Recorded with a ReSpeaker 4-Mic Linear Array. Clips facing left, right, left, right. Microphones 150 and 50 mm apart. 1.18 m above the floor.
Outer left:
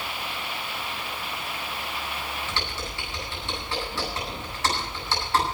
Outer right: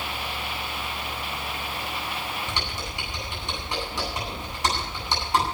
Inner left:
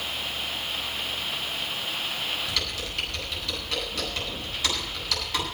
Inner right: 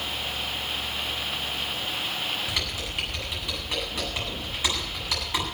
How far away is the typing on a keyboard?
About 9 m.